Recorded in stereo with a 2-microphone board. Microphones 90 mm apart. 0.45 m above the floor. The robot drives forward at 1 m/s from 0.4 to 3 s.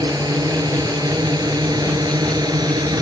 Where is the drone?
50° right (ahead or behind).